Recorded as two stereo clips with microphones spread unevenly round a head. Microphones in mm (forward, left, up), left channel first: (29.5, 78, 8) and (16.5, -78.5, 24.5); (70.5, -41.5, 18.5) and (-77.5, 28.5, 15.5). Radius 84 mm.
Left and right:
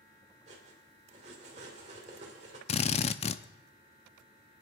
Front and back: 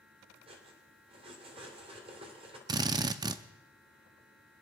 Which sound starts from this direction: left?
A drill, at 2.7 s.